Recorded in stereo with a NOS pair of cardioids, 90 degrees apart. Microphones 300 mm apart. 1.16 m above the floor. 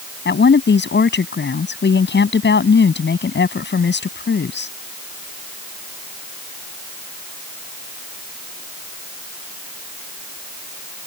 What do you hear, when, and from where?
0.2 s a woman speaking: 35° left